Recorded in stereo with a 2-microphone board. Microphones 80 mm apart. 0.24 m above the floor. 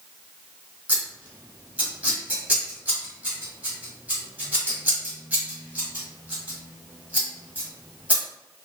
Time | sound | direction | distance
0.9 | scissors | 15° right (ahead or behind) | 1.3 m